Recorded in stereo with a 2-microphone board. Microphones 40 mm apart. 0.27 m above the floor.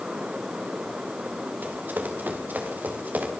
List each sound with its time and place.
1.6 s running footsteps: 55° right (ahead or behind), 5 m; by 3.3 s 50° right (ahead or behind), 6 m